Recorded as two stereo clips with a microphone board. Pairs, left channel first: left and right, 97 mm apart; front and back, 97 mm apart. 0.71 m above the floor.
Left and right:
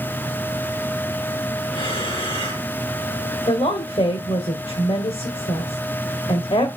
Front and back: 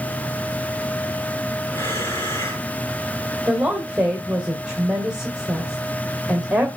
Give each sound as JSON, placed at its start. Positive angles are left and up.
{"t": 1.7, "sound": "breathing", "azimuth_deg": 65, "distance_m": 6.0}
{"t": 3.5, "sound": "a woman speaking", "azimuth_deg": 95, "distance_m": 2.5}